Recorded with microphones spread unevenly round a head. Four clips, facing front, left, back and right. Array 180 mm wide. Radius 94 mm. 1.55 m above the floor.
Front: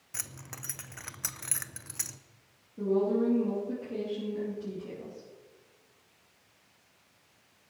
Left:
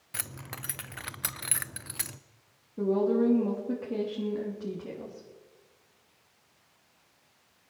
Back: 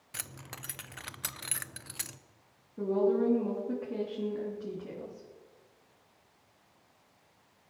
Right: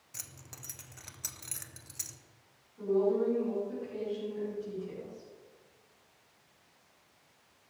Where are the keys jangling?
85° left, 0.6 m.